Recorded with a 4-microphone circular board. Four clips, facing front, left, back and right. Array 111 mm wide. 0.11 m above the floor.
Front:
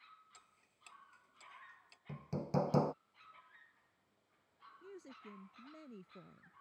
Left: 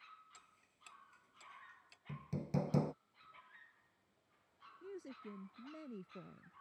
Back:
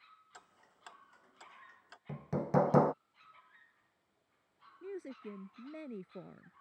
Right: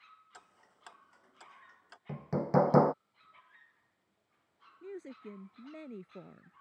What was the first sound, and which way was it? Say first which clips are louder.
Ticking: right 8 dB, back 8 dB; 130° right.